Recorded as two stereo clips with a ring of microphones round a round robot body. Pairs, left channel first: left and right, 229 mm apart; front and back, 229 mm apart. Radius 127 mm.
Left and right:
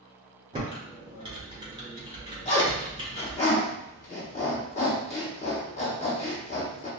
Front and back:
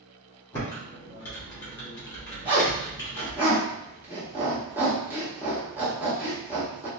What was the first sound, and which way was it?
Typing on a keyboard, 70° right.